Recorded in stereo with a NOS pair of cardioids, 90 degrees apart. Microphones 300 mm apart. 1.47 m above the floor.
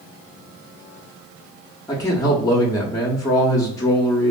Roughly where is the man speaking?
Ahead.